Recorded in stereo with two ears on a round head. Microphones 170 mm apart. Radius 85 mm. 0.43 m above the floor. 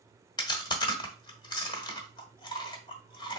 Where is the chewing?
20° left (ahead or behind), 1.0 m.